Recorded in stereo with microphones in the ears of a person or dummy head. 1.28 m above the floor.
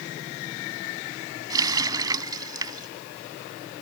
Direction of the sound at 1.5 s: 20° right (ahead or behind).